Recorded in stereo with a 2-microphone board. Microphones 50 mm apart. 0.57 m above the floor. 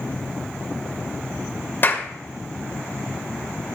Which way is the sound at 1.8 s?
45° left (ahead or behind).